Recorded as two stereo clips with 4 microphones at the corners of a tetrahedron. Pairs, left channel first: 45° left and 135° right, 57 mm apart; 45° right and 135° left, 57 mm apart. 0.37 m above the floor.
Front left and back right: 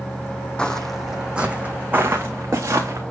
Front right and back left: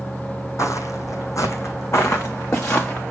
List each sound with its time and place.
0.6 s footsteps: 25° right, 1.0 m; by 3.0 s 95° right, 2 m